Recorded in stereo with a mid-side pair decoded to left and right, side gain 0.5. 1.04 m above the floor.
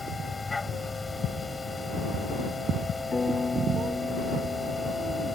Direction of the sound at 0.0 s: 20° left.